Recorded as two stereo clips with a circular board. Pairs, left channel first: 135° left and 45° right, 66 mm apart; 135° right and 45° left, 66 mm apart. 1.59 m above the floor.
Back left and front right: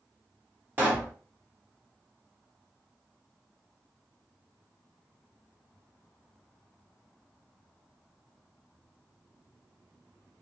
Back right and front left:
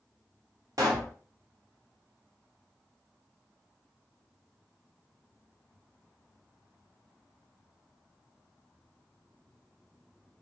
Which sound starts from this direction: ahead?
A pop, at 0.8 s.